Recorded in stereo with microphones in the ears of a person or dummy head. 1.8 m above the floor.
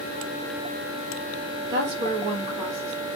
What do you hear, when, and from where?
1.7 s a woman speaking: 60° right (ahead or behind), 0.8 m; by 3.1 s 10° right (ahead or behind), 0.9 m